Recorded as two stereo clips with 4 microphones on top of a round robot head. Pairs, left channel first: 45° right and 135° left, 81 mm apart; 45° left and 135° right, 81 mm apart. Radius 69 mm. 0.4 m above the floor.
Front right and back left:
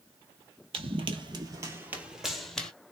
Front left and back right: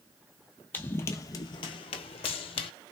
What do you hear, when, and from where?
0.7 s running footsteps: 115° left, 0.8 m; by 2.7 s 30° left, 0.8 m